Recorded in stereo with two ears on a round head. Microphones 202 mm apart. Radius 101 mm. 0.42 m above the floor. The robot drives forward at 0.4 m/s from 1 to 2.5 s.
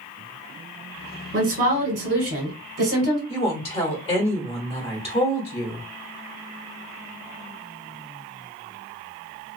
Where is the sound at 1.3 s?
45° right (ahead or behind), 2 m; by 3.2 s 50° right (ahead or behind), 2.0 m.